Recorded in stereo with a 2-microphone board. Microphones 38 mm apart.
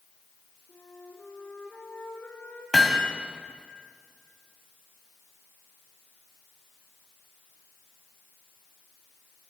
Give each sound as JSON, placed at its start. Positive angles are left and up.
{"t": 0.7, "sound": "a flute", "side_deg": 75, "distance_m": 6.5}
{"t": 2.7, "sound": "hammering", "side_deg": 0, "distance_m": 2.5}